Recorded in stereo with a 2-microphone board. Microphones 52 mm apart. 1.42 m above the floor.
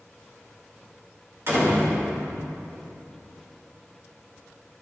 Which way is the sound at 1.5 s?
50° right (ahead or behind).